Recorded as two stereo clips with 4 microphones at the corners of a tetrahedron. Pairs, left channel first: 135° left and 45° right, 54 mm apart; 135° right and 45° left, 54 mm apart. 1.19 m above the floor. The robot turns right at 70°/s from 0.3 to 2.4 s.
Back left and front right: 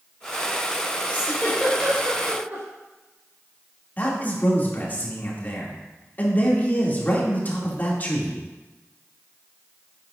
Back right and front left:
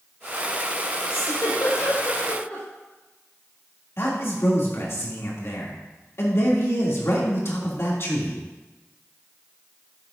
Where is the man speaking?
170° right, 2.5 m.